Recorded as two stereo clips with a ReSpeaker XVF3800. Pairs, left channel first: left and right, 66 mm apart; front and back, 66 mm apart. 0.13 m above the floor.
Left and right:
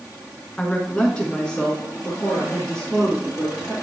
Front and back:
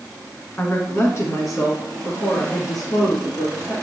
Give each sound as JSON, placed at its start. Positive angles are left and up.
{"t": 0.6, "sound": "a woman speaking", "azimuth_deg": 30, "distance_m": 1.5}